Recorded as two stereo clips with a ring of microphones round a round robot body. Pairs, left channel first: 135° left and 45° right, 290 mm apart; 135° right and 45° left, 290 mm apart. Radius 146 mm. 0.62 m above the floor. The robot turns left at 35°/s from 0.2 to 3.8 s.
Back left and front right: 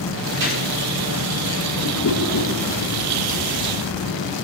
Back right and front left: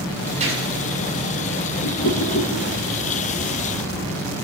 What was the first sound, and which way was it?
A gunshot, 20° right.